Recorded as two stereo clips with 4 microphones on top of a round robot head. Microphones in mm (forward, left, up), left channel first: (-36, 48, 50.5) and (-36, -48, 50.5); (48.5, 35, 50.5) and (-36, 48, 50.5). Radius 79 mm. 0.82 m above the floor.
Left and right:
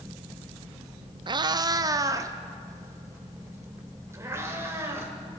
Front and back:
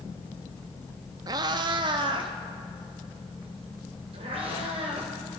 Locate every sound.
1.3 s a cat meowing: 135° right, 0.5 m; by 5.1 s 155° right, 2.5 m